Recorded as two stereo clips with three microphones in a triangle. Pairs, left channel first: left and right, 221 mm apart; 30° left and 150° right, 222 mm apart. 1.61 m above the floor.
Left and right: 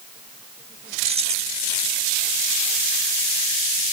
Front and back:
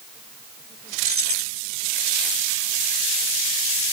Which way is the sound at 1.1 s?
150° right.